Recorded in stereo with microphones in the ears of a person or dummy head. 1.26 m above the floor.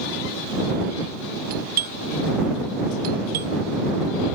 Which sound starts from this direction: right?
A doorbell, at 1.5 s.